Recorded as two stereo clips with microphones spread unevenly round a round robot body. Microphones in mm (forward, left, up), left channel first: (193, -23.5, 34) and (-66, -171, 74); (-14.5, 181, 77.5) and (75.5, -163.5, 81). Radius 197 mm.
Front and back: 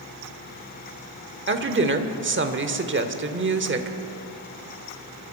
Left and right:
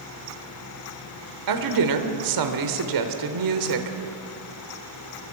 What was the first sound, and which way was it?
A woman speaking, 100° right.